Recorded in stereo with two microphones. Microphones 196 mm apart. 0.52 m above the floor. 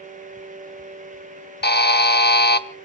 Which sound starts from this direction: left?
A buzzer, at 1.6 s.